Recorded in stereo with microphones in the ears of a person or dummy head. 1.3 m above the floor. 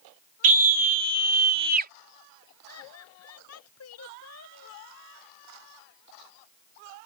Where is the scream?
45° right (ahead or behind); by 1.9 s 55° right (ahead or behind).